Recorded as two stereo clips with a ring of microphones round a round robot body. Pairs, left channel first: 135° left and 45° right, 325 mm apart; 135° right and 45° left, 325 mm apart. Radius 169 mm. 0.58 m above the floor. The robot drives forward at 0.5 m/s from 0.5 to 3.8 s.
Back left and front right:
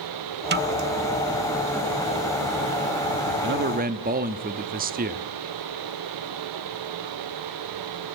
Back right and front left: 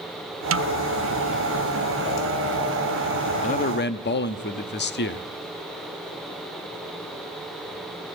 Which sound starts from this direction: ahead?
A snare drum, at 0.5 s.